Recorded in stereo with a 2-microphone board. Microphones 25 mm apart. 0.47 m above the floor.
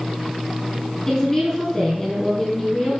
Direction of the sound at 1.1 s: 15° left (ahead or behind).